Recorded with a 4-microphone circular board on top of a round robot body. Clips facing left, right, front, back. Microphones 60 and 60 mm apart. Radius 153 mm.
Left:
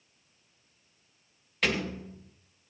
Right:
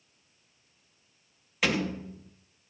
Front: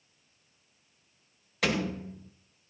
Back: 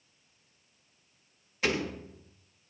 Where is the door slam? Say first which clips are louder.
Right 2 dB, front 1 dB; 10° right, 2 m.